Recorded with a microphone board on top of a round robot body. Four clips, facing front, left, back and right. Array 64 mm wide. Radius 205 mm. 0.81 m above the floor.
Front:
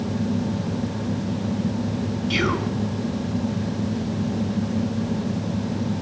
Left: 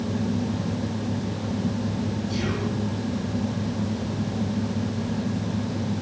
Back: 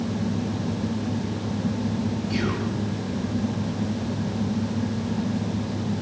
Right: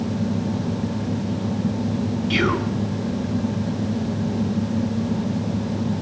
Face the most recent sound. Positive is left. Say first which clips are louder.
# right 6 dB, front 6 dB
turn(degrees=-65)